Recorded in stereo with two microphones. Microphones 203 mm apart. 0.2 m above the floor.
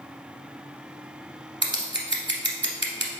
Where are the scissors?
60° right (ahead or behind), 0.9 m.